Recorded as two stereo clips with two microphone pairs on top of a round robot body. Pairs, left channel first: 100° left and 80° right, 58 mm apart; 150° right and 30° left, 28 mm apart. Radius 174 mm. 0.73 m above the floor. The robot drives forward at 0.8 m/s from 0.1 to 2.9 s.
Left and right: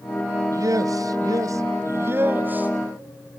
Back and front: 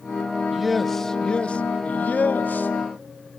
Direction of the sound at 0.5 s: 55° right.